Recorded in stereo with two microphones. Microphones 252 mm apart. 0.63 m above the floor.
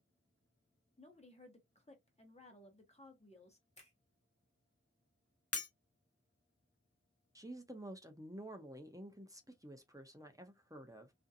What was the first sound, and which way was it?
A woman speaking, 25° left (ahead or behind).